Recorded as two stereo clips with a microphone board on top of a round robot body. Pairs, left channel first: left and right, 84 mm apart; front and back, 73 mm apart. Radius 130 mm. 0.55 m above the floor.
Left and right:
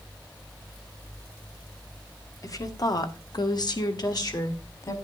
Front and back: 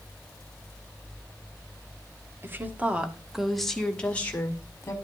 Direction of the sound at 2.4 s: 125° left.